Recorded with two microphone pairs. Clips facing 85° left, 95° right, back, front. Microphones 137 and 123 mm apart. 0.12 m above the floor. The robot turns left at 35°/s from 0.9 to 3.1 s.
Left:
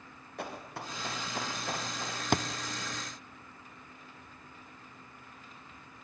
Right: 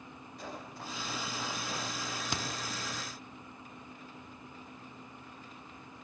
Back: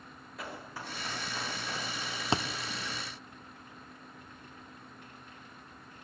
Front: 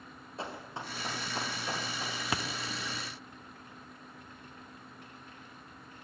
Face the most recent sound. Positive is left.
turn(degrees=90)